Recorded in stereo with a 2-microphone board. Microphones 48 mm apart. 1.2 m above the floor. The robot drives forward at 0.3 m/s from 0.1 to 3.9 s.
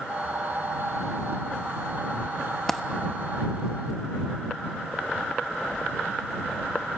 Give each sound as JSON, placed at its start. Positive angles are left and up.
{"t": 2.7, "sound": "a dropped coin", "side_deg": 5, "distance_m": 0.6}